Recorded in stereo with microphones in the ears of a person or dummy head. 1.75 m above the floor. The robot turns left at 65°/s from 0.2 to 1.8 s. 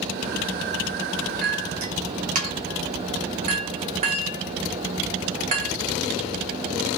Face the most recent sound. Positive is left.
turn(degrees=-40)  # may be behind; listen again after turning